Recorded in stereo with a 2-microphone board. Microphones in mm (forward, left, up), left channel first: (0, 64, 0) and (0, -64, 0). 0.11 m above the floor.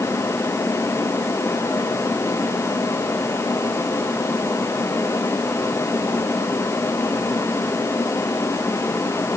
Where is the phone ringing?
No phone ringing in this recording.